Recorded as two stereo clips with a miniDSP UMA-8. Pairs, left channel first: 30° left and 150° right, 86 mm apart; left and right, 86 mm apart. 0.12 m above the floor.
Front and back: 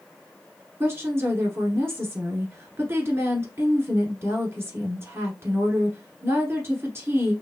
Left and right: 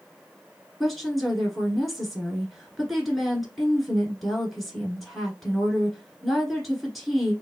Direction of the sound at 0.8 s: Straight behind.